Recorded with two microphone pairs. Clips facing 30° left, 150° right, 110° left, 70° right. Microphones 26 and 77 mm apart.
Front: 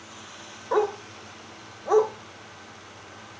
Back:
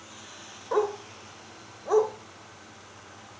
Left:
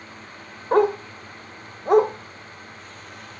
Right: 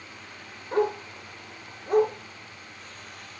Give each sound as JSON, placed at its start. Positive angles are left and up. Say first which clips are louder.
{"t": 0.7, "sound": "a dog barking", "louder": "front 2 dB, left 7 dB", "azimuth_deg": 110, "distance_m": 0.8}